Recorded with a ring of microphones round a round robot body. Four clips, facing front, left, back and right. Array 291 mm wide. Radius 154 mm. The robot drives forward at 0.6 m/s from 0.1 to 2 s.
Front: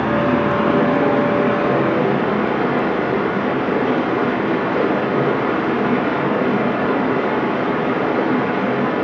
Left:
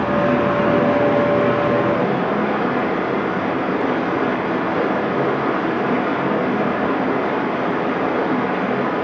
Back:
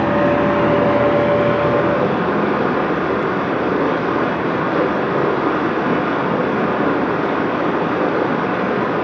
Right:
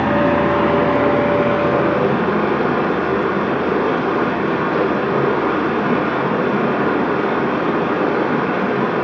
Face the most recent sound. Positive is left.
turn(degrees=-130)